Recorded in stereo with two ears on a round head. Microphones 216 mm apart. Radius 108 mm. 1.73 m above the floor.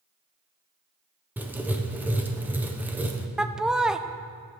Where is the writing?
5° right (ahead or behind), 1.0 m.